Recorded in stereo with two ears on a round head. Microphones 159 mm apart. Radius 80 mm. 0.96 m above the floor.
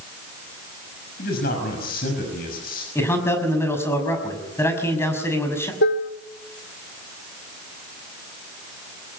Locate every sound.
1.2 s a man speaking: 55° left (ahead or behind), 6 m
3.0 s a man speaking: 15° left (ahead or behind), 6 m
5.8 s dishes clattering: 70° left (ahead or behind), 1.3 m